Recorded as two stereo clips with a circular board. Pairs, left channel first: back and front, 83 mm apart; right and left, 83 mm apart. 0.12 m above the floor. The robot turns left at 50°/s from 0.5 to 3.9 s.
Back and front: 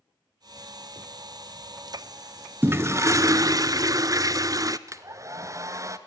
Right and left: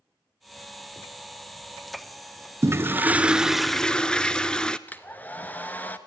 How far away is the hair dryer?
About 1.1 m.